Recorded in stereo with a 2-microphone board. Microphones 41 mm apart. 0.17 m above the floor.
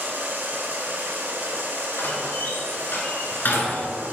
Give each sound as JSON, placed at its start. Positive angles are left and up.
{"t": 0.0, "sound": "running water", "side_deg": -50, "distance_m": 1.7}
{"t": 2.0, "sound": "a door slam", "side_deg": 55, "distance_m": 1.8}